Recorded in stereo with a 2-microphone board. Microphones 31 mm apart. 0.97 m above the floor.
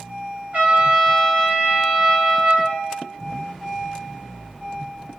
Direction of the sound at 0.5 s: 50° right (ahead or behind).